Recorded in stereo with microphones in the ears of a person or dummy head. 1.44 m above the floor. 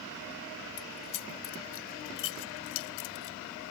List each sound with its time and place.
0.8 s keys jangling: 65° left (ahead or behind); by 3.4 s 75° left (ahead or behind)